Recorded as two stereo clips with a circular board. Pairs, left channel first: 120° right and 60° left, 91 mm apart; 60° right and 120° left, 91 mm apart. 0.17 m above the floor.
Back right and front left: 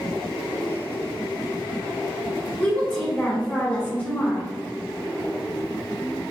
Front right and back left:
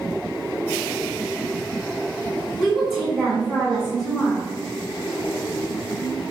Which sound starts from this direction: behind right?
A woman speaking, at 2.6 s.